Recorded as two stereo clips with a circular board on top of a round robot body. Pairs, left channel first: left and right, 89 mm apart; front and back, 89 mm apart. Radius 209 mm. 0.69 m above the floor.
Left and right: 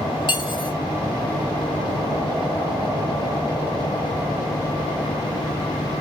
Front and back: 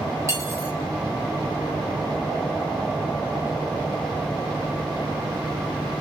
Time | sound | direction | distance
0.3 | cutlery clinking | 120° left | 2.5 m